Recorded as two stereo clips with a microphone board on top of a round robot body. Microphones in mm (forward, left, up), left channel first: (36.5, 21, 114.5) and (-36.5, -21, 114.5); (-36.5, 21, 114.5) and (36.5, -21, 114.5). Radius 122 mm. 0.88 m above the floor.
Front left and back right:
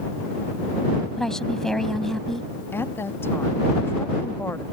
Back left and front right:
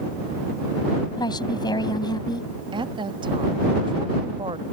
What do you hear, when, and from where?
1.2 s a woman speaking: 115° left
2.7 s a woman speaking: 30° right